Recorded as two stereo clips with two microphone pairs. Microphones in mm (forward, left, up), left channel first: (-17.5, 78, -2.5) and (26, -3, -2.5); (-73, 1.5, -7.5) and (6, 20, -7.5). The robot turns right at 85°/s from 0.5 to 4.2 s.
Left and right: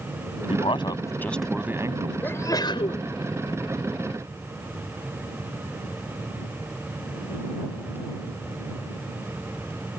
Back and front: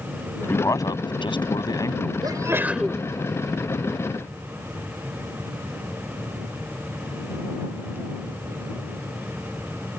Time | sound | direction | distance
0.5 | a man speaking | 125° left | ?
2.2 | a sneeze | 45° left | ?